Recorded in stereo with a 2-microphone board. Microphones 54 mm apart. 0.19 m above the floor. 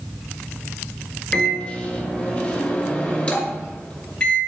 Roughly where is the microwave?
Left.